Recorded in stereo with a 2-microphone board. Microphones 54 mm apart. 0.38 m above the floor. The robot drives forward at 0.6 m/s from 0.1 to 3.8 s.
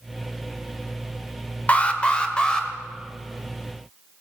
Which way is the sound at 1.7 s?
25° left (ahead or behind).